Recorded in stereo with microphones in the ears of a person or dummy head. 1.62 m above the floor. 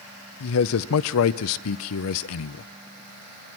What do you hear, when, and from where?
0.4 s a man speaking: 75° left (ahead or behind), 0.5 m